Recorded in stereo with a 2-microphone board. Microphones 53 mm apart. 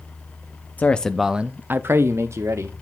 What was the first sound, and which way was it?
A man speaking, 30° left (ahead or behind).